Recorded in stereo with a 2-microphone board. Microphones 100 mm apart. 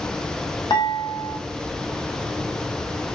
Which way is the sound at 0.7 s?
50° left (ahead or behind).